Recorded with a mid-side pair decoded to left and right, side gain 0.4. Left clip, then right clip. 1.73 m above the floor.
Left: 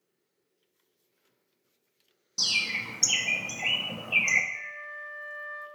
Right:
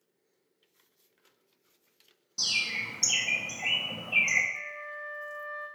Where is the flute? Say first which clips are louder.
Even; 60° left, 0.8 m.